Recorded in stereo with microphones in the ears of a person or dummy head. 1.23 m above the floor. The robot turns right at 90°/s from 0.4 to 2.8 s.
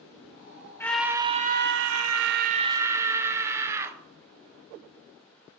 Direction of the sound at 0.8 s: 160° left.